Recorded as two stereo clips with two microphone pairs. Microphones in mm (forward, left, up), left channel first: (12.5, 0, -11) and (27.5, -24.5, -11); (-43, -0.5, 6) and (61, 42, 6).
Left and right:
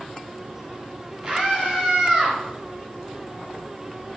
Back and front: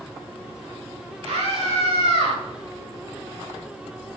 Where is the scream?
15° left, 4.5 m.